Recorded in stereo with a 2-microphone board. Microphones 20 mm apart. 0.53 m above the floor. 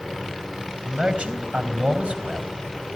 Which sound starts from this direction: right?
A man speaking, at 0.9 s.